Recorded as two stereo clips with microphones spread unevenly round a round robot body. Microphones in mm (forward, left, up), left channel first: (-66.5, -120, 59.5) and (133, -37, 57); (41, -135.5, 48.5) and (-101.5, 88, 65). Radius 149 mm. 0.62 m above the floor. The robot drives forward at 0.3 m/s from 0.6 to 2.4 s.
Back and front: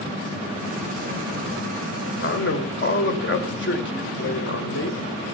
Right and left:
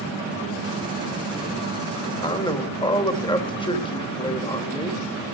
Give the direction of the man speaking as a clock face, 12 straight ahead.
4 o'clock.